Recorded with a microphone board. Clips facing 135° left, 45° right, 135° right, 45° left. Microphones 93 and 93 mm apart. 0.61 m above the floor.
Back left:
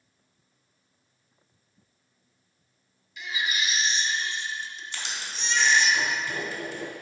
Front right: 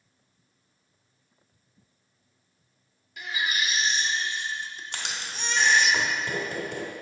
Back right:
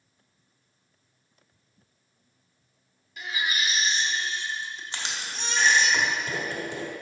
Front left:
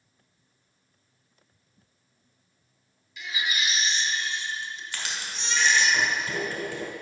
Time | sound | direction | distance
3.2 | a baby crying | 85° right | 0.6 m
4.9 | writing | 70° right | 1.3 m